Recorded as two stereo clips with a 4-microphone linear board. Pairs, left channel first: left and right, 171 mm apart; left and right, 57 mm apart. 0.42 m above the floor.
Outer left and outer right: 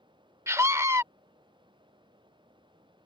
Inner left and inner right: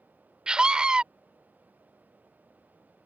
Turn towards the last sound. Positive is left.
turn(degrees=-15)  # may be behind; listen again after turning